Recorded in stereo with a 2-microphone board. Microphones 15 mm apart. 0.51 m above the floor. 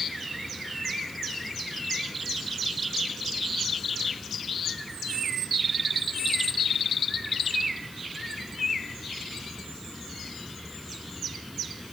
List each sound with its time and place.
Only background noise.